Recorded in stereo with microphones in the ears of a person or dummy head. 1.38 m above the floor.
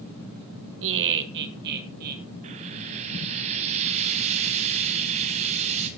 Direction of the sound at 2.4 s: 40° right (ahead or behind).